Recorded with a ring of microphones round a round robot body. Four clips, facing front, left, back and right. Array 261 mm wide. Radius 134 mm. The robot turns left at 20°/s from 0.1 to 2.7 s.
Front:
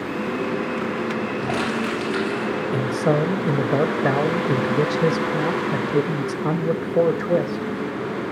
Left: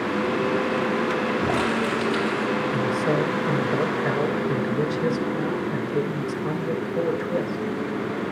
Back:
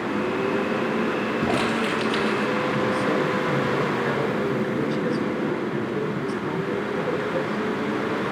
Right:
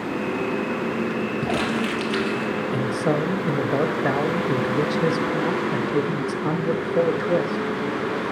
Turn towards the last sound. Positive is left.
turn(degrees=-30)